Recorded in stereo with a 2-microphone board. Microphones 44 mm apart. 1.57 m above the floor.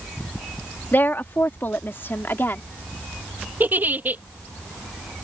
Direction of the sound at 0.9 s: 55° left (ahead or behind).